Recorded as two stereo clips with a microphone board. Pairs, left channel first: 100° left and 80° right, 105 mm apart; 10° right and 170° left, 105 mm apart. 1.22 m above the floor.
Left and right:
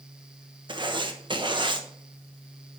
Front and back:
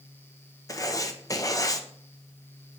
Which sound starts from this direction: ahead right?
Writing, at 0.7 s.